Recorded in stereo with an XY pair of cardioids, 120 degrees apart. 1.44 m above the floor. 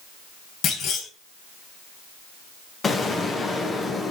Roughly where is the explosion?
Ahead left.